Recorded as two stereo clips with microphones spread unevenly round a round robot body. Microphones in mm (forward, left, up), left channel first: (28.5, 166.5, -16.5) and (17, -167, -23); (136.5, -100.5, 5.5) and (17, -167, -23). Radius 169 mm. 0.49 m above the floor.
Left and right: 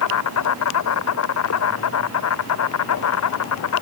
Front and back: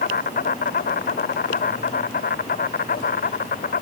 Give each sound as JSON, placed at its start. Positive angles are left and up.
{"t": 0.0, "sound": "an insect", "azimuth_deg": 45}